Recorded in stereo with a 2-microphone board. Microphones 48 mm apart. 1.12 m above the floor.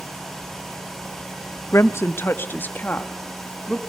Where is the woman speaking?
70° left (ahead or behind), 1.0 m; by 3.9 s 25° left (ahead or behind), 3 m.